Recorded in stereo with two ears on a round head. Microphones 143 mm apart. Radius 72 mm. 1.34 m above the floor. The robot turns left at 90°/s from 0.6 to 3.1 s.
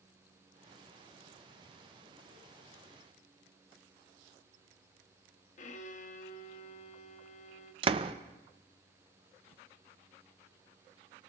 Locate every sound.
5.6 s a violin: 55° left (ahead or behind), 0.8 m
7.8 s a door slam: 35° right (ahead or behind), 0.5 m